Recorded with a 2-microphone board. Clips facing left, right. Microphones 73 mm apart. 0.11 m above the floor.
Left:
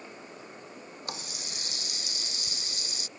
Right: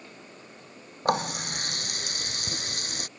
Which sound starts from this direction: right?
A running tap, at 1.1 s.